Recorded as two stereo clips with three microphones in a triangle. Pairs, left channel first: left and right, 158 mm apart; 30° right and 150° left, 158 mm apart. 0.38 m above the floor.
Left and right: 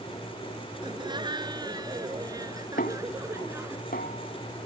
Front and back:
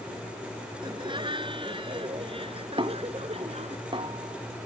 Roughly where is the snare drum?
Left.